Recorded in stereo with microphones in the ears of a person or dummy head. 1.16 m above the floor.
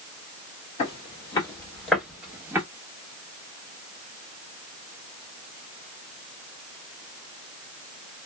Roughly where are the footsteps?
Left.